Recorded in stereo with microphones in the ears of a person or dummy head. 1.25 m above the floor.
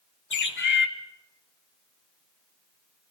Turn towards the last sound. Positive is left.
turn(degrees=60)  # may be behind; listen again after turning